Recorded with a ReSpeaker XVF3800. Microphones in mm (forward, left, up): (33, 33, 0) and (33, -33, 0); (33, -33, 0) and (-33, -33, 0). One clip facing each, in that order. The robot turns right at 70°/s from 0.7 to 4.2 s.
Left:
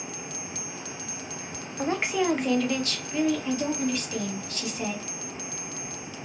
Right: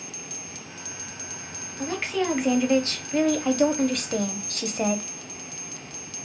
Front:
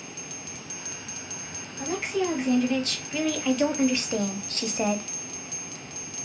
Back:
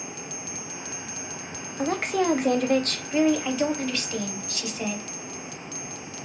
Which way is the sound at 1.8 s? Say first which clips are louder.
Left 1 dB, back 3 dB; 140° left.